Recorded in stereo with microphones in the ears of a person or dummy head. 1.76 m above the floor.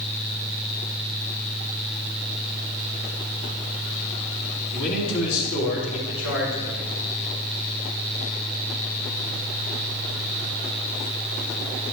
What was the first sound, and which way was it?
A man speaking, 75° left (ahead or behind).